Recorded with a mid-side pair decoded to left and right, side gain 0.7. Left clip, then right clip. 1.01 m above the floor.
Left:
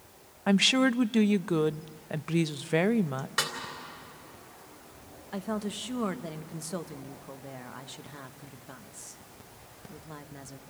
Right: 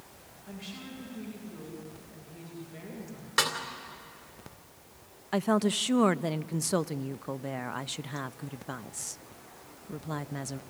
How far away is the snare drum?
About 3.5 m.